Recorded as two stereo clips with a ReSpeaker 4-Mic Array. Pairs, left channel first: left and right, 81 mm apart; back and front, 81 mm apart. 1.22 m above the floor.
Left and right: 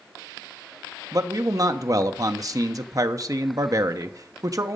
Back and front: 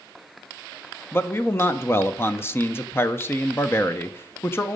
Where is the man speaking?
125° right, 0.7 m.